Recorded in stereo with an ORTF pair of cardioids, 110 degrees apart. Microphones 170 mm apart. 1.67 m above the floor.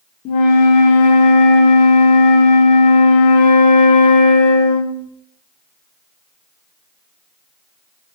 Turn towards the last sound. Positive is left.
turn(degrees=50)